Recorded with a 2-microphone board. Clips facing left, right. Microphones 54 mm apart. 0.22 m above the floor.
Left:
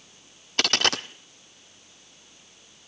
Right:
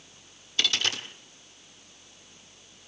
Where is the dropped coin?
60° left (ahead or behind), 0.9 m.